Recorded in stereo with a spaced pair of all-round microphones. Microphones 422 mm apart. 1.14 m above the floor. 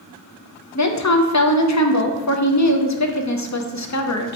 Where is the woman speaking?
40° left (ahead or behind), 0.5 m.